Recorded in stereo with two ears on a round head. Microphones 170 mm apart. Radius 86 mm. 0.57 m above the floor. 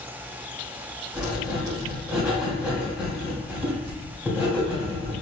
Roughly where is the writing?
Centre.